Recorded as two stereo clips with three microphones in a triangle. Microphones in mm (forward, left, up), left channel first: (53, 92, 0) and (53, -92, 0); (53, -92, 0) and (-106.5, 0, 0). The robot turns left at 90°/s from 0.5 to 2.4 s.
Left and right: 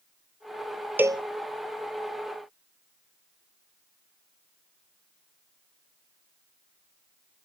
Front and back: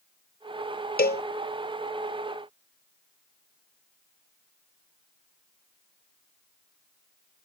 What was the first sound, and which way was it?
A cowbell, 10° right.